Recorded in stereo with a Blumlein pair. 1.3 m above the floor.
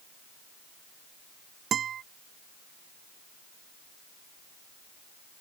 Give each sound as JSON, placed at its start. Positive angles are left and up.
{"t": 1.7, "sound": "a guitar", "azimuth_deg": -25}